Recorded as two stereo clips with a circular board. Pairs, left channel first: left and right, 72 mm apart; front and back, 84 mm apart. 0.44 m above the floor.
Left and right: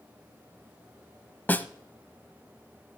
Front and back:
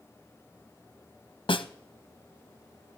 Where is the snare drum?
20° left, 0.6 m.